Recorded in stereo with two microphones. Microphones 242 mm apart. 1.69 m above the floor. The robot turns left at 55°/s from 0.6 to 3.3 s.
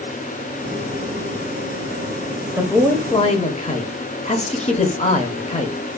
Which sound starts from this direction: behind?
A man speaking, at 2.6 s.